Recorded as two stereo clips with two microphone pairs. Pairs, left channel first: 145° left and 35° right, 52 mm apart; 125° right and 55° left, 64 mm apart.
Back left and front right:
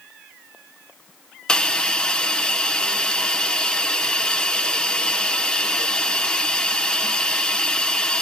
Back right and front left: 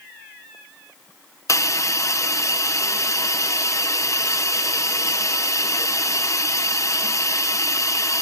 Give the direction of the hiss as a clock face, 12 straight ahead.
5 o'clock.